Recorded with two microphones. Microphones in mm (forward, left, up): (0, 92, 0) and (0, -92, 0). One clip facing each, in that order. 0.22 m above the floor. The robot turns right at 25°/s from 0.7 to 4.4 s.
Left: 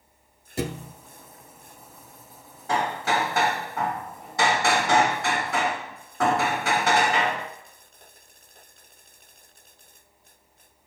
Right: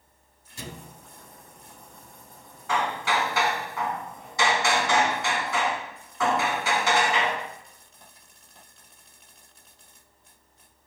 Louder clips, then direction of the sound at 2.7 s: Left 2 dB; 45° left.